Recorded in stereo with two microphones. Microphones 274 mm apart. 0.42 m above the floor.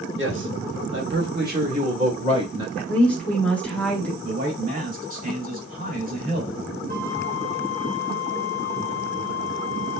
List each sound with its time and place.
0.2 s a man speaking: 40° right (ahead or behind), 1.0 m; by 2.7 s 15° right (ahead or behind), 1.2 m
2.8 s a woman speaking: 5° left (ahead or behind), 0.8 m
4.2 s a man speaking: 30° right (ahead or behind), 1.2 m
6.9 s a flute: 30° right (ahead or behind), 0.8 m